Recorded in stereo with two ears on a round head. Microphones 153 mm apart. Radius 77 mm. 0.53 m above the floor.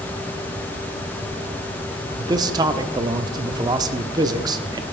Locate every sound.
2.2 s a man speaking: 25° right (ahead or behind), 0.7 m